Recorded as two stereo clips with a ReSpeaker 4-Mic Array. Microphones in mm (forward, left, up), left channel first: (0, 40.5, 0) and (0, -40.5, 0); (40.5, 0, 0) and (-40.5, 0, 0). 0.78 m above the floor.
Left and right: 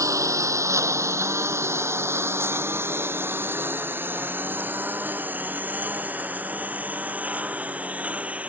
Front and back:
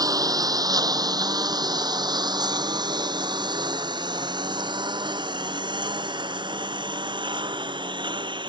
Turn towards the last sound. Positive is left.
turn(degrees=-165)